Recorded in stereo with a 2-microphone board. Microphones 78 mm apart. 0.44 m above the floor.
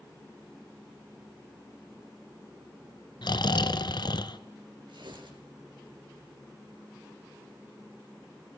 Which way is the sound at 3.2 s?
65° left (ahead or behind).